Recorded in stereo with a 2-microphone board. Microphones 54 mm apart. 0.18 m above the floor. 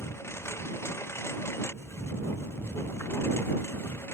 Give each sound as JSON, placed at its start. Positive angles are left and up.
{"t": 0.0, "sound": "a lawn mower", "side_deg": 50}